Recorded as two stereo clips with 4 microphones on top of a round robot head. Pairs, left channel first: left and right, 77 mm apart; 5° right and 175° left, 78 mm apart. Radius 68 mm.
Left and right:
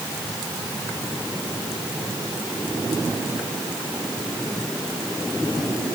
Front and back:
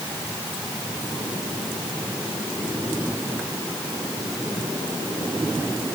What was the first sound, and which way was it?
Only background noise.